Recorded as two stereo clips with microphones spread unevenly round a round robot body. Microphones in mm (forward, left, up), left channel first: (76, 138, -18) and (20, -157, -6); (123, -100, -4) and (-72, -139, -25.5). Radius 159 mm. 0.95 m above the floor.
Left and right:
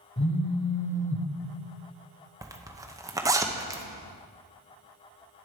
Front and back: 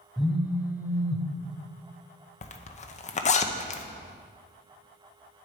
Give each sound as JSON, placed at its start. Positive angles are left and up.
{"t": 0.2, "sound": "a phone buzzing", "azimuth_deg": 95, "distance_m": 0.6}
{"t": 2.4, "sound": "a zipper", "azimuth_deg": -25, "distance_m": 0.7}